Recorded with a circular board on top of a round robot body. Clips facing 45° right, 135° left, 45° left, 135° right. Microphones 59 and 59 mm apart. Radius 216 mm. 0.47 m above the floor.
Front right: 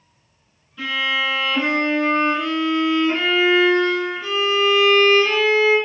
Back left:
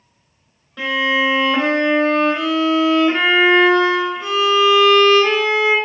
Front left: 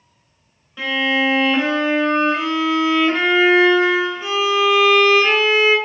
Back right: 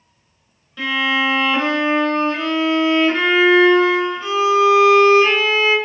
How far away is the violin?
About 1.5 m.